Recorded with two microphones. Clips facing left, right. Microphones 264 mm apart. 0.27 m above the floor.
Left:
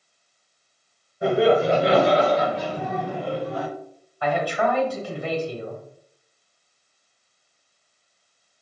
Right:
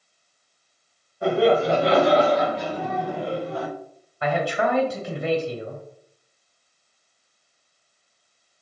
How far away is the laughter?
About 1.3 m.